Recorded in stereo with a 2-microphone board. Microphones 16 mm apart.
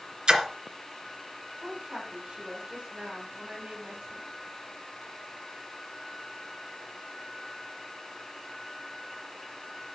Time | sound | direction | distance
0.3 | a splash | 60° right (ahead or behind) | 2.5 m
1.6 | a woman speaking | 80° right | 7.5 m